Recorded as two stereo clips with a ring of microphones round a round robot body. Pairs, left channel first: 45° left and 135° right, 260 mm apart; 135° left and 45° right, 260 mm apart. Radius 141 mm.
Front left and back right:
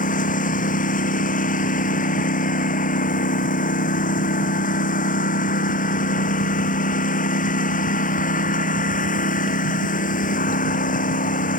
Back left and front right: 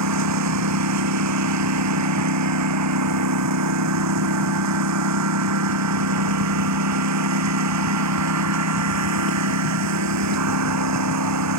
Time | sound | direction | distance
0.0 | a lawn mower | 15° right | ?